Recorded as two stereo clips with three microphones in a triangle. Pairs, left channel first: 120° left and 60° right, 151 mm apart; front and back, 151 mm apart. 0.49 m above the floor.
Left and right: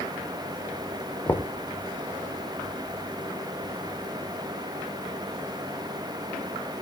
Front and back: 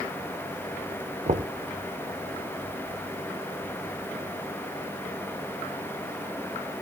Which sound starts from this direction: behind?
Knocking, at 1.3 s.